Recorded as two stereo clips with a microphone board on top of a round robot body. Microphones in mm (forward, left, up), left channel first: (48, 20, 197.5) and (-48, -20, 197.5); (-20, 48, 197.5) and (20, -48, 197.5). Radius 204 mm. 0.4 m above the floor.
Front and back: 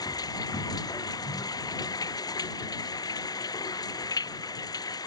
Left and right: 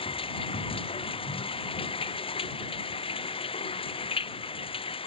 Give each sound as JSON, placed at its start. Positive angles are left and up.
{"t": 0.0, "sound": "running water", "azimuth_deg": 75}